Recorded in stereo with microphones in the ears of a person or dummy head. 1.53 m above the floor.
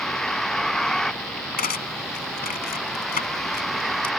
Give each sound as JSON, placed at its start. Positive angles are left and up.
{"t": 0.0, "sound": "a vehicle", "side_deg": 5}
{"t": 1.6, "sound": "cutlery clinking", "side_deg": 40}